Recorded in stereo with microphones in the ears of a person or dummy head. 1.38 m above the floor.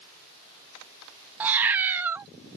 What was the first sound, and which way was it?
A cat meowing, 10° right (ahead or behind).